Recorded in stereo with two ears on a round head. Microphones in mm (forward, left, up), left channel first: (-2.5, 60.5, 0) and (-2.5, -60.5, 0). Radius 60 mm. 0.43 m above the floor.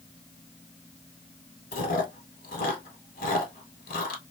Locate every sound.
1.7 s chewing: 75° left (ahead or behind), 1.2 m